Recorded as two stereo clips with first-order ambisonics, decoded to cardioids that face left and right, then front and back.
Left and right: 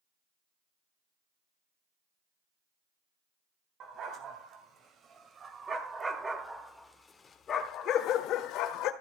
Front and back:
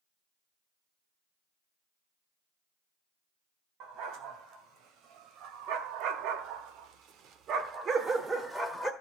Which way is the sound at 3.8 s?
140° right.